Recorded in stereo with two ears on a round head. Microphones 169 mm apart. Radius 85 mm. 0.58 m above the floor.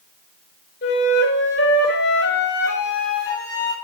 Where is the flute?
60° left (ahead or behind), 1.6 m.